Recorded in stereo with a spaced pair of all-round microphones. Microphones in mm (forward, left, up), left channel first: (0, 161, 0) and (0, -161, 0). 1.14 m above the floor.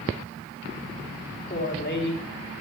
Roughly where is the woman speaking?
Left.